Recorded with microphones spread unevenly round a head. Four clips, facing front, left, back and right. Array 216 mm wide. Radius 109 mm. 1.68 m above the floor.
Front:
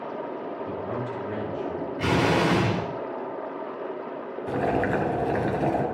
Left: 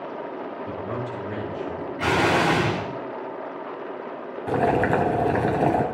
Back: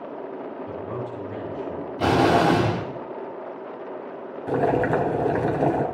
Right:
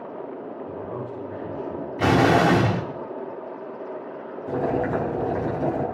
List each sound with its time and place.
0.7 s a man speaking: 85° left, 8.5 m
2.0 s an explosion: 145° right, 2 m
4.5 s boiling: 120° left, 3.5 m